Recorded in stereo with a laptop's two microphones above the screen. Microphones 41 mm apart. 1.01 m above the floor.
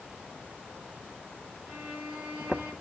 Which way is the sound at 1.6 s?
35° right (ahead or behind).